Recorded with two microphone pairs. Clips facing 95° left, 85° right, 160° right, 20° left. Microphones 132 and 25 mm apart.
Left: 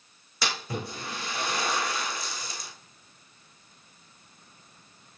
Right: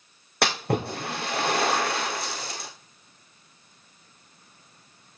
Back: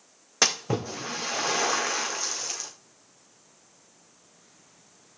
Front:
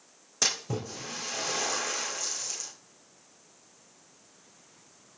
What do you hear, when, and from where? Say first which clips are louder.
0.4 s a splash: right 8 dB, back 5 dB; 110° right, 2.5 m